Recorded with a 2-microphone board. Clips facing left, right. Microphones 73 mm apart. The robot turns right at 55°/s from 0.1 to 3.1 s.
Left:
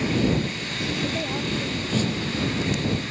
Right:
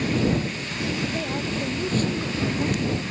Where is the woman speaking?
165° left; by 3.1 s 80° right.